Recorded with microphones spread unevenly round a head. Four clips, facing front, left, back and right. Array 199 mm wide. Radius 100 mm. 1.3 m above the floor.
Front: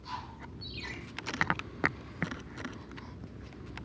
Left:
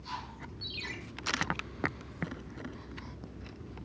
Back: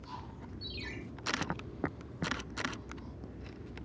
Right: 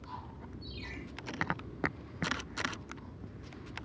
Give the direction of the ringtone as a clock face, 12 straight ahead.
9 o'clock.